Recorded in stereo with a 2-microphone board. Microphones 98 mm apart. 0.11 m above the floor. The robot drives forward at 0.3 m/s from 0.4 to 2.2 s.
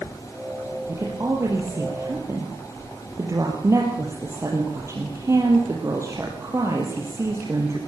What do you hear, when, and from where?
0.9 s a woman speaking: 25° right (ahead or behind), 4 m; by 7.8 s 30° right (ahead or behind), 4 m